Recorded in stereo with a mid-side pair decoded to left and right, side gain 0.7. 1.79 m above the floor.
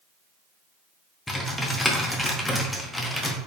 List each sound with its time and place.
1.3 s typing on a keyboard: 5° left, 0.9 m